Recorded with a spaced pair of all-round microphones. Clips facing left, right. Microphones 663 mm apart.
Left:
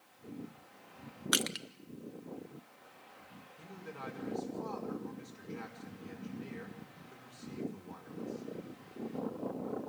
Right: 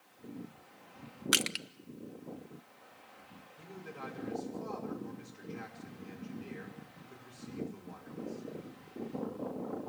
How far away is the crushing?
About 0.7 m.